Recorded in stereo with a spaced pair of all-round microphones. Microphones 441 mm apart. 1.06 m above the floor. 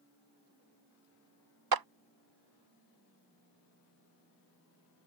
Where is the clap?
55° right (ahead or behind).